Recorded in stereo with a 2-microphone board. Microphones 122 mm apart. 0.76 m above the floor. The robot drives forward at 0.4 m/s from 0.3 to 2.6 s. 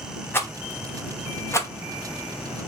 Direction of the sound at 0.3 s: 20° left (ahead or behind).